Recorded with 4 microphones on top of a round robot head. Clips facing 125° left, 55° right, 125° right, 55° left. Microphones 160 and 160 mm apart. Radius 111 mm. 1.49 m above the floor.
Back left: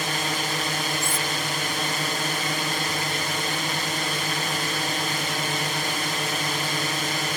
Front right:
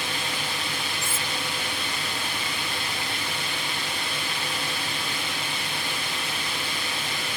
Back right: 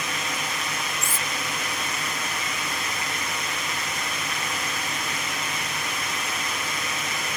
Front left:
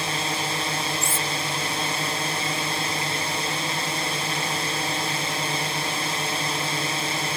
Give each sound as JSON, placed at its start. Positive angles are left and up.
{"t": 0.0, "sound": "a drone", "azimuth_deg": 105}
{"t": 1.0, "sound": "cutlery clinking", "azimuth_deg": -135}